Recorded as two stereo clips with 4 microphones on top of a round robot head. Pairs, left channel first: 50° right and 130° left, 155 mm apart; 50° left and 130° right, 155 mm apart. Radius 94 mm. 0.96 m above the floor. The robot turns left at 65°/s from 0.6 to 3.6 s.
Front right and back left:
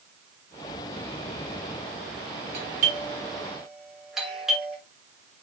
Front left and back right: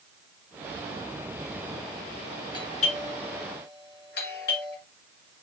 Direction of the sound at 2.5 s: 110° left.